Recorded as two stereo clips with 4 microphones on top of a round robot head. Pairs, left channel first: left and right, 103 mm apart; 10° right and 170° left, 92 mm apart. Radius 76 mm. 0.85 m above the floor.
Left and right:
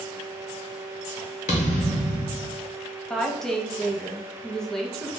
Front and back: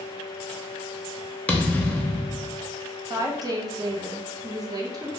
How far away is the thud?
About 0.5 m.